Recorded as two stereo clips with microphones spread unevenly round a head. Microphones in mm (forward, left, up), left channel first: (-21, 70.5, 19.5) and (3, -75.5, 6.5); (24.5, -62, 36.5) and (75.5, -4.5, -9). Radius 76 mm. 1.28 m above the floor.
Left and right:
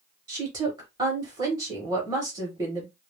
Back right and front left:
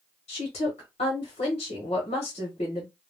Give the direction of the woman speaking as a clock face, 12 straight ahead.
5 o'clock.